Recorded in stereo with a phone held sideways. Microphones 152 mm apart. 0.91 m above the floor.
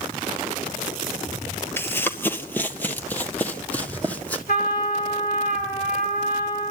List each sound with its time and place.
1.8 s running footsteps: 15° left (ahead or behind), 1.0 m; by 4.4 s 10° left (ahead or behind), 2 m
4.5 s a trumpet: 80° left, 3.5 m